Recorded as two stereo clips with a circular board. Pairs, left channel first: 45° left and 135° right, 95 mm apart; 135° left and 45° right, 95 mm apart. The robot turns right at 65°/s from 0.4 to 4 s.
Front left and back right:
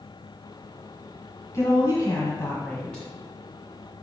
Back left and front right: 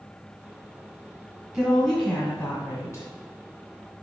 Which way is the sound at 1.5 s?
30° left.